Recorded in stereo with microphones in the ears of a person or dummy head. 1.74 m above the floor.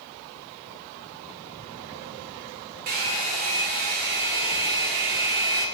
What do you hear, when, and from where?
2.9 s a hair dryer: 50° right (ahead or behind), 1.1 m